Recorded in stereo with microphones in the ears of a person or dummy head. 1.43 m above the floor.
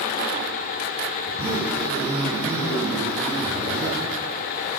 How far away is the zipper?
About 5 m.